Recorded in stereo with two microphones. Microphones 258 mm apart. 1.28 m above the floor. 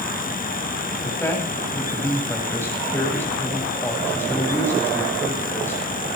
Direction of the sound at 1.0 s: 10° left (ahead or behind).